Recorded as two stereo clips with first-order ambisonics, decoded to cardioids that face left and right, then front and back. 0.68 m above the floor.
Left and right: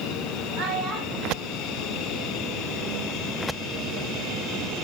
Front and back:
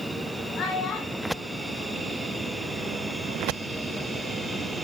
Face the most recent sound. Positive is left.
turn(degrees=-95)